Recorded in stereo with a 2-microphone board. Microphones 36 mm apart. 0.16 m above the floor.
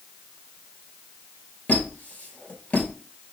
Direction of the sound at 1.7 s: 45° left (ahead or behind).